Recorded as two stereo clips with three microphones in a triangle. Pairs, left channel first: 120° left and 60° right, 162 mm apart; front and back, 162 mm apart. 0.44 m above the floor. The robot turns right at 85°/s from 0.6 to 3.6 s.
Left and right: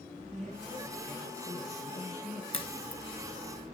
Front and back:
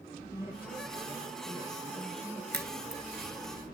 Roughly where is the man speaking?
Ahead.